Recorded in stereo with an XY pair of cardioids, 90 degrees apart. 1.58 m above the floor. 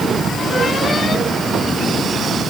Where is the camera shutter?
No camera shutter in this recording.